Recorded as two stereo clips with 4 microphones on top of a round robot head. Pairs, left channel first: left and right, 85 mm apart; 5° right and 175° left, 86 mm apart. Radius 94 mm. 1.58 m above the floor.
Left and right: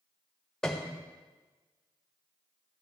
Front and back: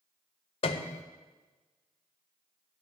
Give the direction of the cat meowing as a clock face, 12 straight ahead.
No cat meowing in this recording.